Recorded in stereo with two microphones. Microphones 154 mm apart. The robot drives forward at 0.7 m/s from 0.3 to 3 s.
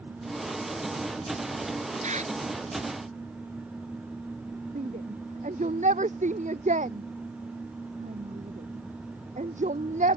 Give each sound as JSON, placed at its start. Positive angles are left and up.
{"t": 2.0, "sound": "a bird", "side_deg": -55}
{"t": 4.8, "sound": "a shout", "side_deg": -60}